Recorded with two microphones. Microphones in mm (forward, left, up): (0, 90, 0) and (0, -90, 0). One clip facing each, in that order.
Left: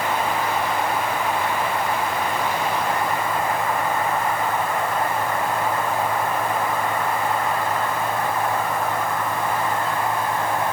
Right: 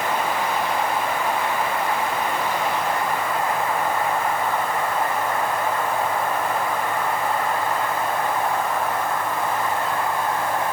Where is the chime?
No chime in this recording.